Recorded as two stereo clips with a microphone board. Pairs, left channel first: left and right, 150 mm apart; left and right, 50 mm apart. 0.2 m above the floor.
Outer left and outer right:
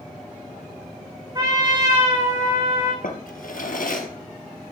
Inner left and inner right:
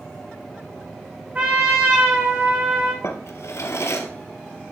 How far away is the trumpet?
About 2.5 m.